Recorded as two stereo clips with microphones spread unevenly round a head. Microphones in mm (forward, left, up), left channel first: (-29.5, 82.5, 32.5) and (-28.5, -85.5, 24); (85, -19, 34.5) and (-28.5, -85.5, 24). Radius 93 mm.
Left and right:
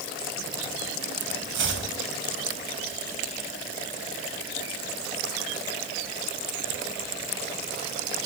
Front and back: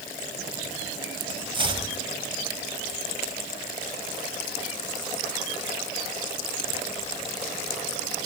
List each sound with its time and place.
1.5 s chopping: 100° right, 5.5 m